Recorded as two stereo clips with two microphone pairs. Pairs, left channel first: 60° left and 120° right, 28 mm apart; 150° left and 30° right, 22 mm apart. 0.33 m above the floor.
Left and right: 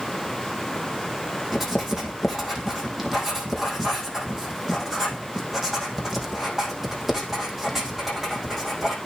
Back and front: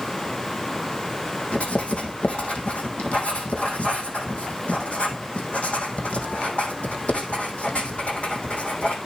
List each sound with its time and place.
1.5 s writing: 155° left, 4 m